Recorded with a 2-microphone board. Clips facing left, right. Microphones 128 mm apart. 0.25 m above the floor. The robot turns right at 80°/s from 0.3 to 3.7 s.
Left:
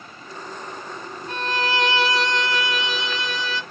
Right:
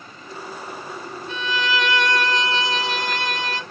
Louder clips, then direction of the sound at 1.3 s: Even; 110° left.